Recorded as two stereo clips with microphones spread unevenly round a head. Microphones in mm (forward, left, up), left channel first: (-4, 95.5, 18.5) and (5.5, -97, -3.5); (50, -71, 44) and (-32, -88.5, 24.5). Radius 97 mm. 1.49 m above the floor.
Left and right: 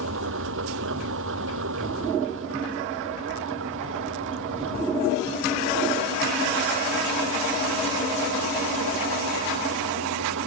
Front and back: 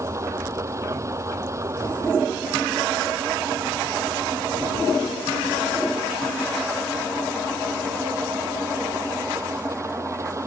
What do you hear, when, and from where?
0.0 s an engine running: 115° right